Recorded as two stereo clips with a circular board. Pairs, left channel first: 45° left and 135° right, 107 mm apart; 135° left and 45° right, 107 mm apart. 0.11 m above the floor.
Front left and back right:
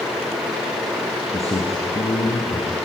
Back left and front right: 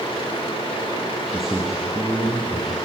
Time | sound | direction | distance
1.3 | a man speaking | 45° left | 2.5 m